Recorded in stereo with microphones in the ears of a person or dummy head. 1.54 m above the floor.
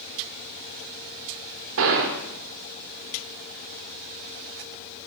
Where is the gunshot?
70° right (ahead or behind), 2.5 m.